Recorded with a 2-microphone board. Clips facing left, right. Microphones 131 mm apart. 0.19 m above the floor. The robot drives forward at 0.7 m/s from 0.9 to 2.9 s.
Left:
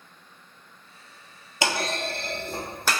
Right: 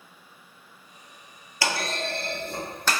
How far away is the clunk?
About 0.8 m.